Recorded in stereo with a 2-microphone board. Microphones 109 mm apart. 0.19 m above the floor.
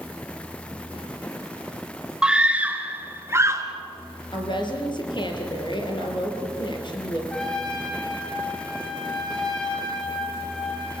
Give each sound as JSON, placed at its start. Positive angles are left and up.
{"t": 2.2, "sound": "a scream", "side_deg": -10, "distance_m": 2.0}
{"t": 4.3, "sound": "a woman speaking", "side_deg": 45, "distance_m": 4.5}
{"t": 7.3, "sound": "a trumpet", "side_deg": 5, "distance_m": 9.0}